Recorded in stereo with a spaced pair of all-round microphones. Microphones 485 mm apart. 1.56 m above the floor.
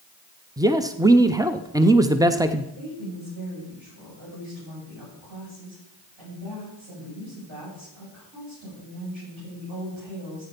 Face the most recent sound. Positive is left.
turn(degrees=-70)  # may be behind; listen again after turning